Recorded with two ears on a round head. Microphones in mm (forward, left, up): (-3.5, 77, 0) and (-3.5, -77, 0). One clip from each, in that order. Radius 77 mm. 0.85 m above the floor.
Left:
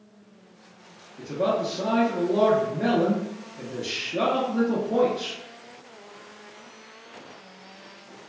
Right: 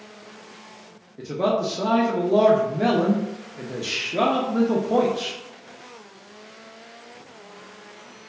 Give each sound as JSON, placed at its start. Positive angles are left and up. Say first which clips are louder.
{"t": 1.2, "sound": "a man speaking", "louder": "right 2 dB", "side_deg": -40, "distance_m": 0.5}